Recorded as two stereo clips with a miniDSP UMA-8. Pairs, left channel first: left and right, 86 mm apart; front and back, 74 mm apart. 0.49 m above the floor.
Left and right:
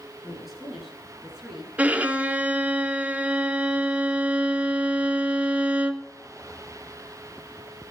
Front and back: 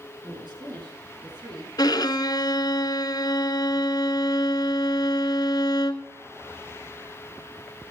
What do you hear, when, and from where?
0.2 s a woman speaking: 175° right, 8 m
1.8 s a violin: 15° right, 0.9 m